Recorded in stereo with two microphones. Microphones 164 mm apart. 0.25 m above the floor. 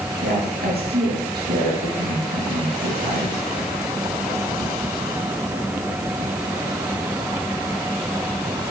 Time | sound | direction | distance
0.2 | a woman speaking | 75° right (ahead or behind) | 5 m